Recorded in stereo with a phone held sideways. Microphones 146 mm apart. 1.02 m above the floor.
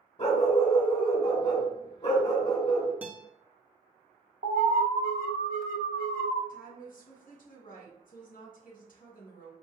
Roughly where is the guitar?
Centre.